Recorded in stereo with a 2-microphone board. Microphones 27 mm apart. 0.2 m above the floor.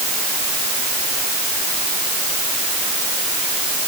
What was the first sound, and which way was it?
Only background noise.